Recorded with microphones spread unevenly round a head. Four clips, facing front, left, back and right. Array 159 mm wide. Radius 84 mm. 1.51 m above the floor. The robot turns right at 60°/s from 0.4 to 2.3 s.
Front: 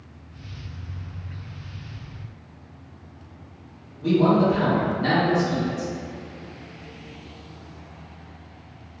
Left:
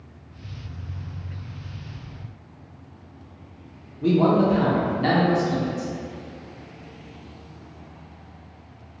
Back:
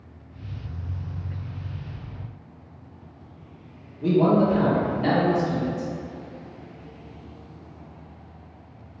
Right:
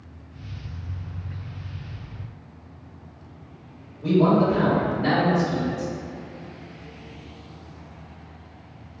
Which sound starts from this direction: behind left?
A man speaking, at 4.0 s.